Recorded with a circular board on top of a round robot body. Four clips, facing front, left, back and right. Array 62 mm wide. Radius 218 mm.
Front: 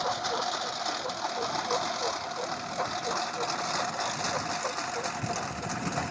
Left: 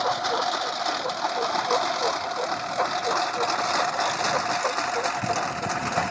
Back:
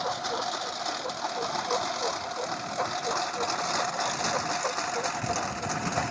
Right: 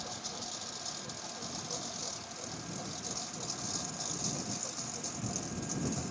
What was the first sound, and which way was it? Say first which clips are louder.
A lawn mower: left 20 dB, even; 85° left.